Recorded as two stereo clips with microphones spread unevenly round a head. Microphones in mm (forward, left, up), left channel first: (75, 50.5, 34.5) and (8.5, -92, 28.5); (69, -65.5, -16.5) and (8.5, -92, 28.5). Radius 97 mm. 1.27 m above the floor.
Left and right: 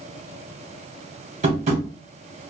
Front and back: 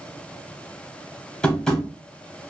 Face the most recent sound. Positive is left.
turn(degrees=-95)